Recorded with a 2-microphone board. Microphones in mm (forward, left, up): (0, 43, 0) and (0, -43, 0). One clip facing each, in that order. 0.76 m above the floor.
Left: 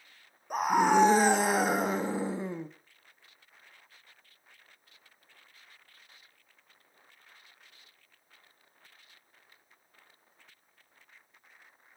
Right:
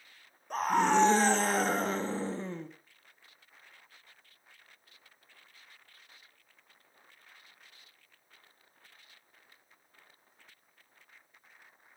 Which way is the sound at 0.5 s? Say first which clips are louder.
Left 2 dB; 10° left (ahead or behind).